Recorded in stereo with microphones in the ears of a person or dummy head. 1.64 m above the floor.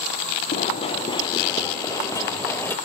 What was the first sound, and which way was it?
Running footsteps, 45° left (ahead or behind).